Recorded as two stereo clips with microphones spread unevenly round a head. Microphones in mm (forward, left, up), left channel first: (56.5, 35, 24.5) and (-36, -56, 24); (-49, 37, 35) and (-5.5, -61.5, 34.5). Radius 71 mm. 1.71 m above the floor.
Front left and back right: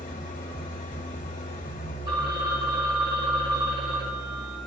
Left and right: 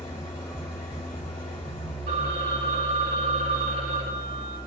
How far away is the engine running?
About 1.6 m.